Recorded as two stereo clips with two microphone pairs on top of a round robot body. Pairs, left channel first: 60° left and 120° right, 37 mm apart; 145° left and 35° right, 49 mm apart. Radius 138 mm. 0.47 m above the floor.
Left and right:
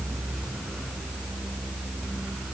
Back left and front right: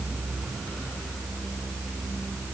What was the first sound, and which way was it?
Only background noise.